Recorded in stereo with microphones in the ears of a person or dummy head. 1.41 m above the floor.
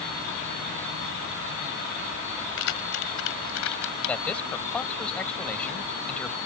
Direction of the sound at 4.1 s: 5° left (ahead or behind).